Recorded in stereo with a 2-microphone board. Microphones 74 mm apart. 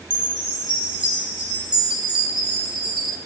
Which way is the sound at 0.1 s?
15° right (ahead or behind).